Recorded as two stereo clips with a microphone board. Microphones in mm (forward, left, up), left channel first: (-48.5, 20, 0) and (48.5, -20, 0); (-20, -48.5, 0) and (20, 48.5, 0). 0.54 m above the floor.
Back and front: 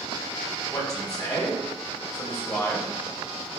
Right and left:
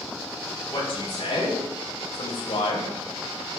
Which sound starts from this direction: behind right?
A man speaking, at 0.7 s.